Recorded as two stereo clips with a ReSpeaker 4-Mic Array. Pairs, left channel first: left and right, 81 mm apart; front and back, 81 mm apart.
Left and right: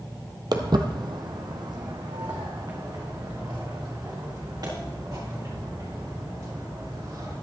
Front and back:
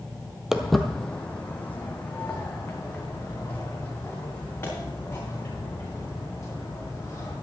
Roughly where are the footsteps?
Right.